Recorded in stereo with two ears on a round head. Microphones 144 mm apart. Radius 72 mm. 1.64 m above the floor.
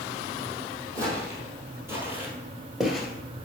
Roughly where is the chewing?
I don't hear chewing.